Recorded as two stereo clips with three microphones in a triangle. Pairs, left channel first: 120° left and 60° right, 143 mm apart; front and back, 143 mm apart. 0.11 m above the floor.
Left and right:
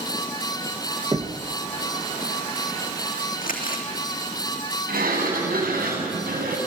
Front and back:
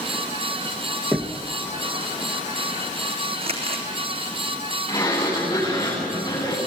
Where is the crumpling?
135° left, 3 m.